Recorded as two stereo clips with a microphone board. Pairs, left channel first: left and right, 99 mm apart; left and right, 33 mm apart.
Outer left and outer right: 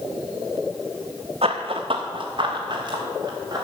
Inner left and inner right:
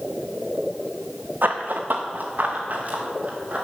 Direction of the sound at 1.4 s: 75° right (ahead or behind).